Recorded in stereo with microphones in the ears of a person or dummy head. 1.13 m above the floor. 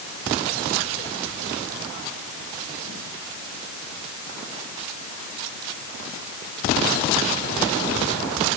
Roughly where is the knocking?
No knocking in this recording.